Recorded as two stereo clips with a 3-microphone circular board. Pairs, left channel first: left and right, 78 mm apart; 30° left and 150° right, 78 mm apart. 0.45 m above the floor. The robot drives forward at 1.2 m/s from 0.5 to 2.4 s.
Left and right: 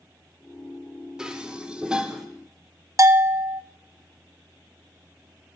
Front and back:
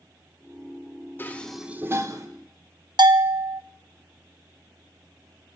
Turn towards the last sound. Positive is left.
turn(degrees=-135)